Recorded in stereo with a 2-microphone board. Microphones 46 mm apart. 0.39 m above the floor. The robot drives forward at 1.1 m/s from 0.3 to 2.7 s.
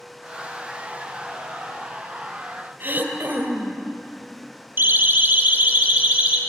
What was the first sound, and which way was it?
Throat clearing, 40° right (ahead or behind).